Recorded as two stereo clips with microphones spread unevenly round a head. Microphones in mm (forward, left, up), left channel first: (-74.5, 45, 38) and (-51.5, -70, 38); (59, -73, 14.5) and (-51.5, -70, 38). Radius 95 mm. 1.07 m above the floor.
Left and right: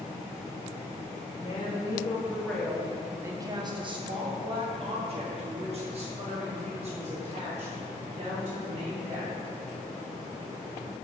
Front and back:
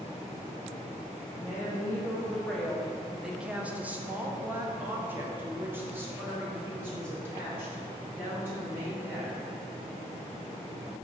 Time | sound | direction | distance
1.3 | a woman speaking | 60° left | 1.0 m